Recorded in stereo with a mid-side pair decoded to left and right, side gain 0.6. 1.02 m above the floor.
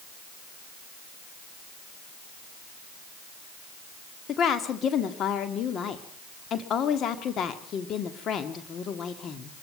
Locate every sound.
4.3 s a woman speaking: 50° left, 1.8 m